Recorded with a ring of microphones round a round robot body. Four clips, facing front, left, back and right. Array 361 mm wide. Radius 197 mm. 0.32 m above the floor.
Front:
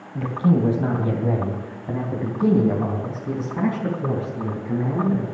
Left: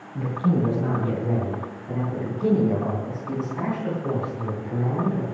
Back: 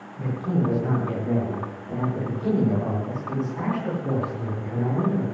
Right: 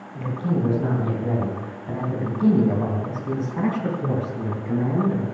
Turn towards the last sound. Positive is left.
turn(degrees=-55)